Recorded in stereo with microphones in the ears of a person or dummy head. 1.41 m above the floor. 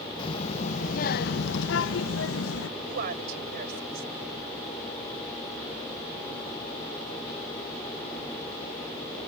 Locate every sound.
0.2 s a child speaking: 30° left (ahead or behind); by 2.7 s 75° left (ahead or behind)
2.8 s a woman speaking: 60° right (ahead or behind)